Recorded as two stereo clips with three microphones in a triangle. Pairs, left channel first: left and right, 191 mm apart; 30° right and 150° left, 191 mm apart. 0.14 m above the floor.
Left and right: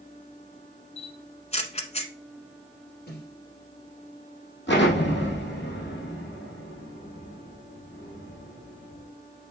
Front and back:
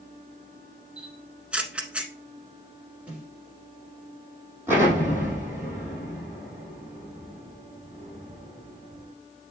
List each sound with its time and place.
1.0 s a camera shutter: 70° left, 0.9 m
3.1 s a snare drum: 70° left, 4 m
4.7 s an explosion: 70° left, 3.5 m